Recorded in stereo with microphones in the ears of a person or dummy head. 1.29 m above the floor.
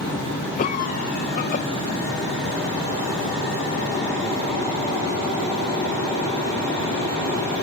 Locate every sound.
0.6 s a cough: 50° left (ahead or behind), 0.9 m